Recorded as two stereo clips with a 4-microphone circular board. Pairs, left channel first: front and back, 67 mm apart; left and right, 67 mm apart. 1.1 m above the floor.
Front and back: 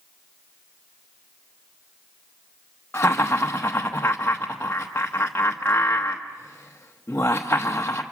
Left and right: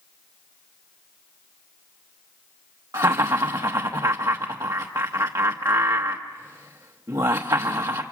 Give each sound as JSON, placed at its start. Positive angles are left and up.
{"t": 2.9, "sound": "laughter", "azimuth_deg": -60, "distance_m": 0.9}